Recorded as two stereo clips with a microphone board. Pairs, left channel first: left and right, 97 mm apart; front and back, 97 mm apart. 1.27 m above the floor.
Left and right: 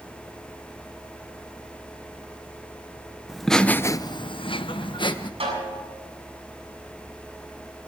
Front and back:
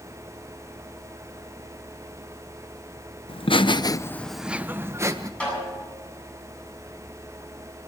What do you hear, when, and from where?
3.3 s laughter: 5° right, 1.0 m; by 5.3 s 125° left, 1.4 m
5.4 s a snare drum: 80° right, 8 m